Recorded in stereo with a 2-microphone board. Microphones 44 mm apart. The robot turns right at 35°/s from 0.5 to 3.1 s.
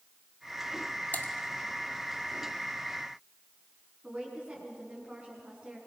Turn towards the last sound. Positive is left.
turn(degrees=-25)  # may be behind; listen again after turning